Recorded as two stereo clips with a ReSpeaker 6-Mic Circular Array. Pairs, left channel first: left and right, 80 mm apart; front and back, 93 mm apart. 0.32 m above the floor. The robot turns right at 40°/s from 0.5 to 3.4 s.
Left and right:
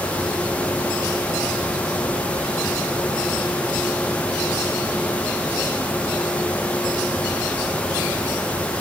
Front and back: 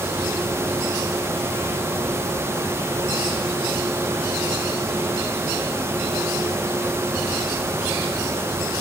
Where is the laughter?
I don't hear laughter.